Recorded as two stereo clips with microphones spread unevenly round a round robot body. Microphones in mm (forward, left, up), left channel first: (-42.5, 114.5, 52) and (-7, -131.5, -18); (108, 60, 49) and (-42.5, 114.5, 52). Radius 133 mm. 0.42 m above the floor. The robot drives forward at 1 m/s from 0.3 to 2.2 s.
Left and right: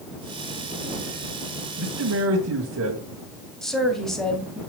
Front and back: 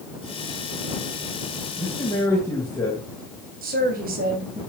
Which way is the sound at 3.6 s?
170° right.